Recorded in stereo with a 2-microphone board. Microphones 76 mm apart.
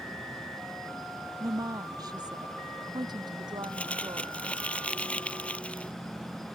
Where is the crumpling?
15° left (ahead or behind).